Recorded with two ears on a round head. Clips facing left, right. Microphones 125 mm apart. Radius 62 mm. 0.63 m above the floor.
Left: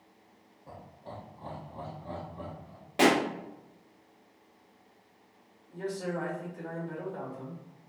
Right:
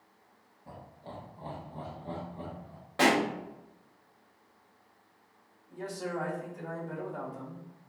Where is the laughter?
15° right (ahead or behind), 1.1 m; by 2.8 s 25° right (ahead or behind), 1.6 m.